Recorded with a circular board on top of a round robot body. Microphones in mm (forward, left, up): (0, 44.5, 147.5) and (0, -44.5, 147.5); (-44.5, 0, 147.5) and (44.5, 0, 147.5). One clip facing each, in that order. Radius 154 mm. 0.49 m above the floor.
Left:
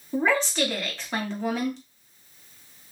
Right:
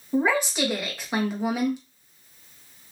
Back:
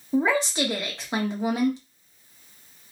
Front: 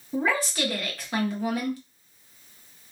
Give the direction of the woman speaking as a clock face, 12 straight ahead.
5 o'clock.